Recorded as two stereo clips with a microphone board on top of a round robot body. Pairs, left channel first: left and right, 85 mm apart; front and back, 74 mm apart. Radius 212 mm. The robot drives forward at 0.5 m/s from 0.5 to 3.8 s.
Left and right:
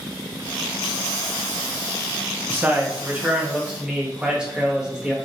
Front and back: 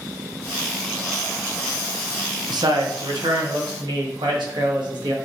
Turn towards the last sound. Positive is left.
turn(degrees=-170)